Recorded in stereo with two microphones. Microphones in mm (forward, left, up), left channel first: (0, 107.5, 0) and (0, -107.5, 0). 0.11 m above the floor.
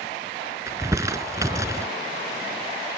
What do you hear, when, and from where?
0.7 s crumpling: 15° right (ahead or behind)